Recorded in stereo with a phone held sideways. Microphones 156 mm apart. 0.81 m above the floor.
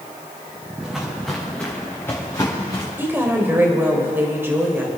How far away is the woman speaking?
About 2.5 m.